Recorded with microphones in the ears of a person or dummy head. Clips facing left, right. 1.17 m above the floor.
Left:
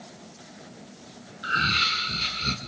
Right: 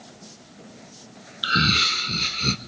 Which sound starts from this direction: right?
Laughter, at 1.4 s.